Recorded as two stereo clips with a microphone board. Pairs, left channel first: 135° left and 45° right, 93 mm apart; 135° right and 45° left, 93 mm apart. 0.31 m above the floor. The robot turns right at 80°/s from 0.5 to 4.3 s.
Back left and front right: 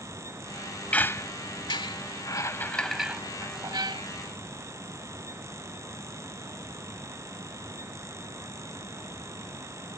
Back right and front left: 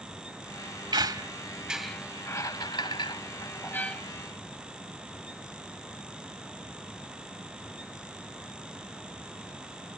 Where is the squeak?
60° left; by 4.0 s 50° right.